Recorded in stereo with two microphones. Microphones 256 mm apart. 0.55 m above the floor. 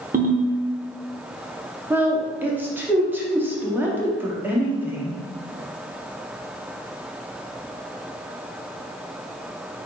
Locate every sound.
0.1 s a ringtone: 35° right (ahead or behind), 0.6 m
1.9 s a woman speaking: 10° right (ahead or behind), 0.6 m